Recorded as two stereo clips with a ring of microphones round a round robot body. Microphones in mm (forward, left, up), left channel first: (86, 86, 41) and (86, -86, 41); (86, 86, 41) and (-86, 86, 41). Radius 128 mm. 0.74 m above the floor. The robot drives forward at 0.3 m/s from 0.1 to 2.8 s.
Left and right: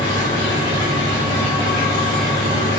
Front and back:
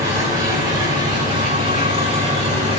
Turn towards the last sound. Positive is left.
turn(degrees=130)